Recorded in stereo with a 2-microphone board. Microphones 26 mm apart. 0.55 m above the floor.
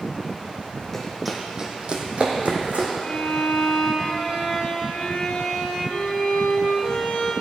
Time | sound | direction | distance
0.9 | running footsteps | 10° left (ahead or behind) | 1.3 m
3.0 | a violin | 60° left (ahead or behind) | 1.8 m